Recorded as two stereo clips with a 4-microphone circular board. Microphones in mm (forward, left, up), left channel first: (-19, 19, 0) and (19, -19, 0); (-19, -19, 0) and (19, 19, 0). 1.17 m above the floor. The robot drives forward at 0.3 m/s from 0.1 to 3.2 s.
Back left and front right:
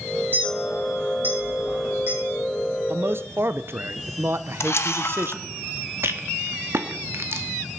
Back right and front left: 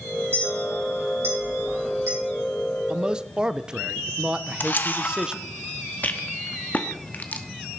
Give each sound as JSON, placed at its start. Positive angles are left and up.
{"t": 0.3, "sound": "a clink", "azimuth_deg": 5, "distance_m": 5.5}
{"t": 2.9, "sound": "a man speaking", "azimuth_deg": -20, "distance_m": 0.6}
{"t": 4.6, "sound": "a camera shutter", "azimuth_deg": 170, "distance_m": 0.9}
{"t": 6.0, "sound": "a rattle", "azimuth_deg": -80, "distance_m": 1.1}